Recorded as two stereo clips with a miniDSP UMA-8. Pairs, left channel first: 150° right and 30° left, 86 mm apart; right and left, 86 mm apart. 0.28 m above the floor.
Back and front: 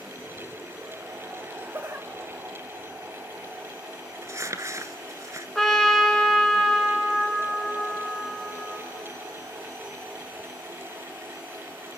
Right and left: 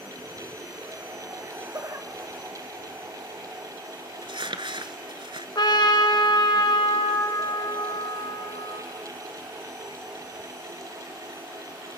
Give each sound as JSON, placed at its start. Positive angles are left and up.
{"t": 1.4, "sound": "laughter", "azimuth_deg": 60, "distance_m": 1.2}
{"t": 4.2, "sound": "crumpling", "azimuth_deg": 80, "distance_m": 1.1}
{"t": 5.5, "sound": "a trumpet", "azimuth_deg": -65, "distance_m": 1.9}